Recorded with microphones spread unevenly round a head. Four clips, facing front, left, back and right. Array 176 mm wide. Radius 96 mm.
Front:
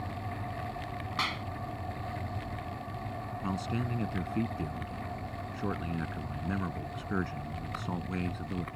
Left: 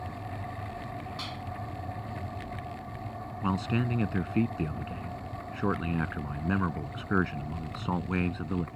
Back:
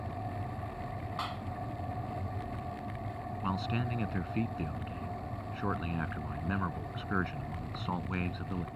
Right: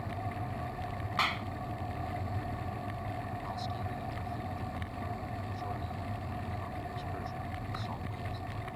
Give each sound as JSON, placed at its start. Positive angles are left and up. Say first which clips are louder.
{"t": 1.2, "sound": "a clap", "louder": "right 6 dB, front 4 dB", "azimuth_deg": -45}
{"t": 3.4, "sound": "a man speaking", "louder": "left 8 dB, even", "azimuth_deg": 85}